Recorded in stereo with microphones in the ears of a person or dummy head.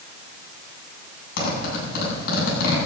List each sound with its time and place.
1.4 s a zipper: 60° left (ahead or behind), 9 m